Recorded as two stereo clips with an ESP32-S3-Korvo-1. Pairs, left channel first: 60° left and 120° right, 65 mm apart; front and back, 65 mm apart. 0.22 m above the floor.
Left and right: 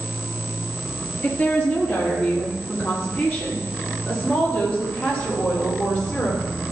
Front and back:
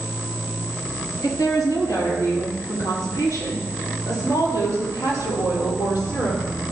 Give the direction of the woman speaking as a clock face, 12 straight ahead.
12 o'clock.